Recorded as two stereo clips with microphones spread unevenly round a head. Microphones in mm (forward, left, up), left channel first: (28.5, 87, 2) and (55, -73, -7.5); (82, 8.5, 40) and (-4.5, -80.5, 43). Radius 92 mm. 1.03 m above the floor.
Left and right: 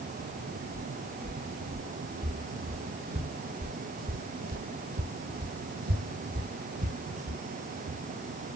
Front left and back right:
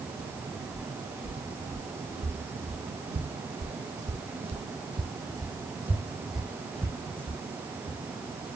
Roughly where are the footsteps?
Behind right.